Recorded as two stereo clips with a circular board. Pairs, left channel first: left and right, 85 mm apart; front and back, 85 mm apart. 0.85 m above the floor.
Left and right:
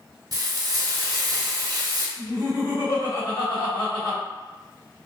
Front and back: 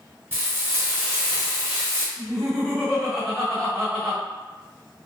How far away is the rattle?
I don't hear a rattle.